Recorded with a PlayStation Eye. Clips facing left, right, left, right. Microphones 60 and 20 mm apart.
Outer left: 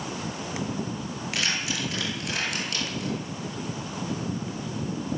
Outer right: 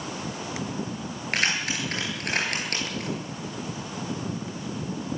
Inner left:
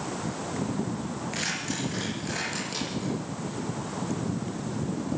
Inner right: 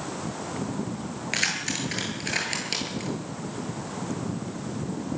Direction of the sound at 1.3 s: 45° right (ahead or behind).